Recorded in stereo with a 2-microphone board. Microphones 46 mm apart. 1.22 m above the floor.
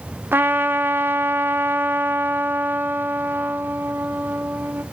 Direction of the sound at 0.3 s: 45° right (ahead or behind).